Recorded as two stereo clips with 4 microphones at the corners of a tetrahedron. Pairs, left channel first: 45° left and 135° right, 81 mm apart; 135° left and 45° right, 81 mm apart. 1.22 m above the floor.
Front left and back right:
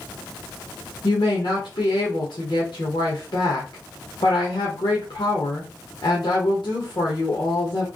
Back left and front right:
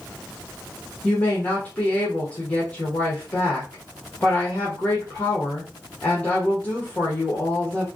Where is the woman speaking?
65° left, 1.3 m.